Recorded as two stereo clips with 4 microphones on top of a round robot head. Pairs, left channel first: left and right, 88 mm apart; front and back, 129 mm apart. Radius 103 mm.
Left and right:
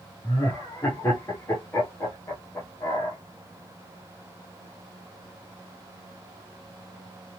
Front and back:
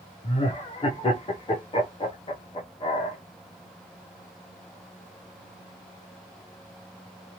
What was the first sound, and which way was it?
Laughter, 35° left.